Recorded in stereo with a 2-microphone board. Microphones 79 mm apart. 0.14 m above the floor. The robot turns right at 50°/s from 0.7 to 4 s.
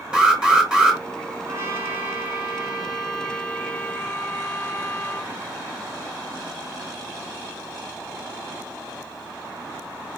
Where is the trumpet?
80° right, 1.0 m; by 5.3 s 45° left, 1.0 m.